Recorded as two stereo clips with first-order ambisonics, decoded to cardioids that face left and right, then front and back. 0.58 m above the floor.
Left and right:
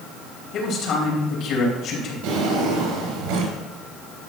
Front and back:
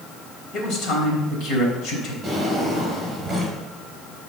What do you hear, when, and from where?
0.5 s a man speaking: 40° left, 3 m
2.2 s a drawer: 95° right, 3.5 m